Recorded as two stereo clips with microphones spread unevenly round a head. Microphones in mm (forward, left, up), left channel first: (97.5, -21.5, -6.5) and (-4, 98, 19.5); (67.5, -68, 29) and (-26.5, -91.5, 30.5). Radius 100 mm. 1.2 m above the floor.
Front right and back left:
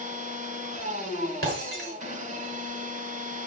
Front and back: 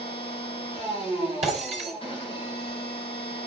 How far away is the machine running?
About 7 m.